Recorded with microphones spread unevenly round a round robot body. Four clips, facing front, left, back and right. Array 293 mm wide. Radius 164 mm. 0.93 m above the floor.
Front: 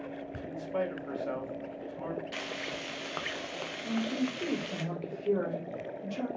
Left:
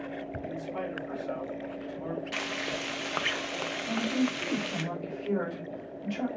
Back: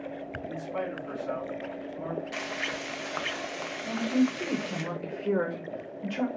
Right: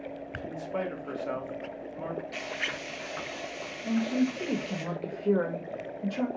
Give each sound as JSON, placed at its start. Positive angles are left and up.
{"t": 0.5, "sound": "a man speaking", "azimuth_deg": -95, "distance_m": 1.5}
{"t": 2.3, "sound": "frying", "azimuth_deg": 120, "distance_m": 0.5}
{"t": 3.8, "sound": "a woman speaking", "azimuth_deg": -135, "distance_m": 1.6}